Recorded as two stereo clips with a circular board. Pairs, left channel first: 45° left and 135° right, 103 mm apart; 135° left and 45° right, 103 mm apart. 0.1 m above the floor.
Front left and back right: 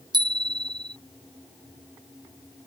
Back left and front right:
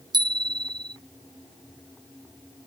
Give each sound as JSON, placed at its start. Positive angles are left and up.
{"t": 0.1, "sound": "a bicycle bell", "azimuth_deg": -90}